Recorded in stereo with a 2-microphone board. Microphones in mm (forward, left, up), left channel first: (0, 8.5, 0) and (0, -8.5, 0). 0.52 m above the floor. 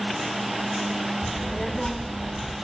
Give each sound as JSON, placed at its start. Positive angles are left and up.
{"t": 1.2, "sound": "a child speaking", "side_deg": 0, "distance_m": 1.5}